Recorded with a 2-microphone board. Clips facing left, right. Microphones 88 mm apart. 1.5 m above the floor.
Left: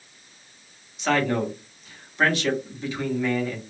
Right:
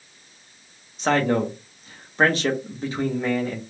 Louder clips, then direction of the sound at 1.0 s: Right 2 dB; 35° right (ahead or behind).